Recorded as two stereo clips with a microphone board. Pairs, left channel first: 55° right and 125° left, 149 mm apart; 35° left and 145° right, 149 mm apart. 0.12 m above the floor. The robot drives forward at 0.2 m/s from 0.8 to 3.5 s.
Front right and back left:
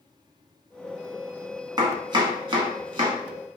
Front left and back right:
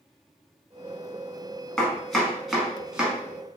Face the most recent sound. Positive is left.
turn(degrees=140)